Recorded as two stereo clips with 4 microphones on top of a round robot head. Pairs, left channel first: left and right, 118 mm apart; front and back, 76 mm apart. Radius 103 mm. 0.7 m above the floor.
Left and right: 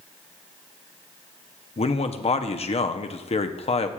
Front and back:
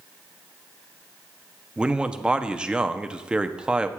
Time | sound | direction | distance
1.8 | a man speaking | 100° left | 0.8 m